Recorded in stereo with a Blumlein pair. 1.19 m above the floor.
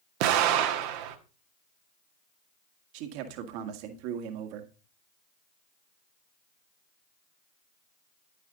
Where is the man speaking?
45° right, 1.9 m.